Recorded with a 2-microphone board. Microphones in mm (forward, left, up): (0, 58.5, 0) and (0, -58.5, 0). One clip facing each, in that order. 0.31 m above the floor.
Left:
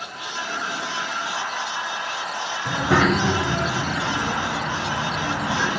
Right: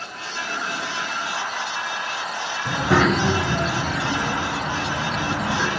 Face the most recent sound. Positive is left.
turn(degrees=-10)  # may be behind; listen again after turning